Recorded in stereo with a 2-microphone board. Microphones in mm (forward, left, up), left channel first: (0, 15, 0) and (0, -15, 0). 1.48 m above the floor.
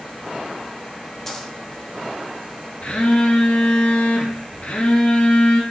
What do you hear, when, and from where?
1.3 s a dropped coin: 15° left (ahead or behind), 1.0 m
2.8 s a phone buzzing: 50° left (ahead or behind), 1.4 m